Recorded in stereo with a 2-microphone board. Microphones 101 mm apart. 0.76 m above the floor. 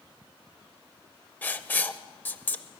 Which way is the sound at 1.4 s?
20° left (ahead or behind).